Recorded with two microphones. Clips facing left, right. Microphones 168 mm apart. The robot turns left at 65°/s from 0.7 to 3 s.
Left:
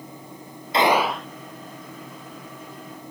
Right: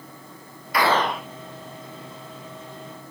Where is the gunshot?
25° left; by 1.3 s 10° right.